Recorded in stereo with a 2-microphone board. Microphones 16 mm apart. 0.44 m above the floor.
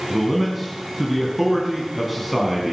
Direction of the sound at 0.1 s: Centre (ahead or behind).